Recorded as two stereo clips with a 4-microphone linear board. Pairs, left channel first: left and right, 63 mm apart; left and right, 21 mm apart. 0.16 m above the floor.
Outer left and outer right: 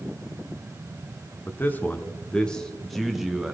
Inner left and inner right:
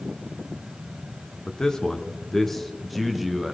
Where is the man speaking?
30° left (ahead or behind), 1.5 m; by 3.5 s 10° right (ahead or behind), 1.4 m.